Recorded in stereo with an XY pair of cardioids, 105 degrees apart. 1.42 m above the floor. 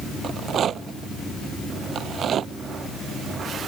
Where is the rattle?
55° right.